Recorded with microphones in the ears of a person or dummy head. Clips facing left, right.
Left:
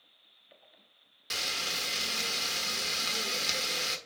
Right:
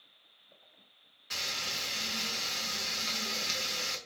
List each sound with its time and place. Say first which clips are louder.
1.3 s frying: left 3 dB; 55° left (ahead or behind), 1.4 m